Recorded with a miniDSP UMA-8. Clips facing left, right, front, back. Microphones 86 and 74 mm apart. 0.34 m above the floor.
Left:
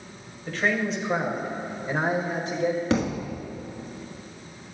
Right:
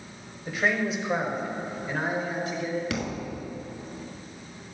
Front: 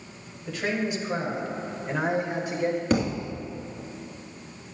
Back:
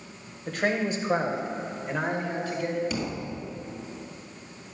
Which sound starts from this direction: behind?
A man speaking, at 0.5 s.